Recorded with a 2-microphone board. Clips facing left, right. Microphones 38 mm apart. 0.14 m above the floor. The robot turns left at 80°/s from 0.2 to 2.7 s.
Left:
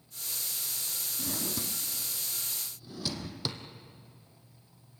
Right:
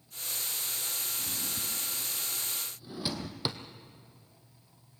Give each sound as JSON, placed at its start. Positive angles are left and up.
{"t": 1.2, "sound": "a drawer", "side_deg": 75, "distance_m": 1.6}